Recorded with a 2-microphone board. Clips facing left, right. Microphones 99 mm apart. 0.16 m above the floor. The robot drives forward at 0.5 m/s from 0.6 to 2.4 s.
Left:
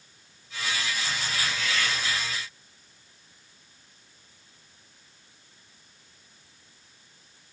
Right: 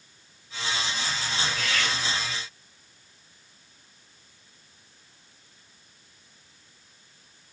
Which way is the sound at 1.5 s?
55° right (ahead or behind).